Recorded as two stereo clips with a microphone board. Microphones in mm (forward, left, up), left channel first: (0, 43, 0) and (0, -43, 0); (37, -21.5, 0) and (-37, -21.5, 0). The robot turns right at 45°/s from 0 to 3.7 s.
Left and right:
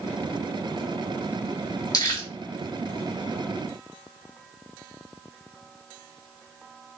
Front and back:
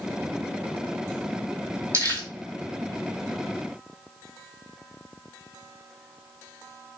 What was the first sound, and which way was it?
Crumpling, 135° left.